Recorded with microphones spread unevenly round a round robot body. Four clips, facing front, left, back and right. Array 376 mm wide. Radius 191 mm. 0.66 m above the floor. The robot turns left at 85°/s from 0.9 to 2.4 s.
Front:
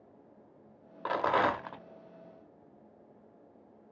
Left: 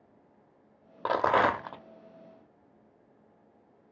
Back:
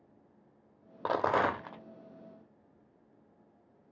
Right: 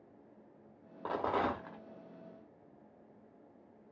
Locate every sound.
1.1 s a rattle: 115° left, 0.5 m; by 1.8 s 50° left, 0.5 m